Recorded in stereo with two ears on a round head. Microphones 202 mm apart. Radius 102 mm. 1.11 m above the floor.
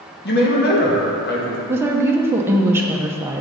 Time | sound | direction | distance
0.2 | a man speaking | 50° left (ahead or behind) | 1.6 m
1.7 | a woman speaking | 10° right (ahead or behind) | 0.8 m